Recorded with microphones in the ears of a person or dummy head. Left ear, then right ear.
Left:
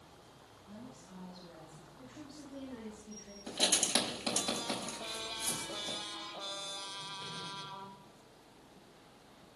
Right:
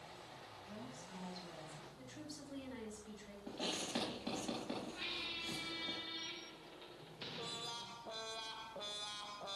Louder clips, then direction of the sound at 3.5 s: Left 11 dB; 90° left.